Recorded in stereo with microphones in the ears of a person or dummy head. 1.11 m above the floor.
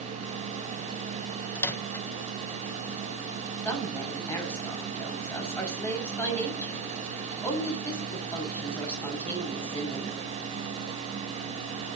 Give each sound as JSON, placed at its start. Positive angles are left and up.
{"t": 1.6, "sound": "a microwave", "side_deg": 10, "distance_m": 0.8}
{"t": 3.6, "sound": "a woman speaking", "side_deg": 10, "distance_m": 6.0}